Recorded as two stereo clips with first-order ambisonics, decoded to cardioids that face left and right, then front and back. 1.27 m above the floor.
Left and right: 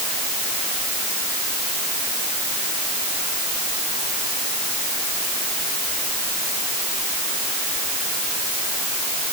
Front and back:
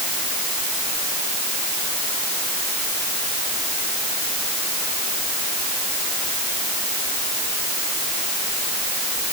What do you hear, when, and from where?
Only background noise.